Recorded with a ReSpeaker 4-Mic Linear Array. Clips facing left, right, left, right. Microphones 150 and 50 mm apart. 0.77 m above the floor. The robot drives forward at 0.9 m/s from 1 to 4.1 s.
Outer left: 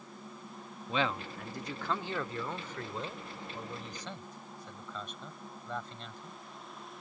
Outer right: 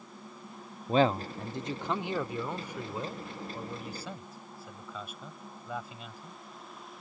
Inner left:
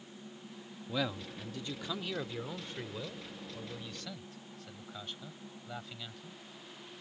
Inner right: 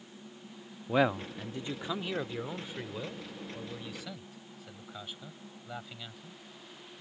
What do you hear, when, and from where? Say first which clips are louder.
0.9 s a man speaking: outer right 8 dB, inner right 8 dB; 40° right (ahead or behind); by 6.4 s 5° right (ahead or behind)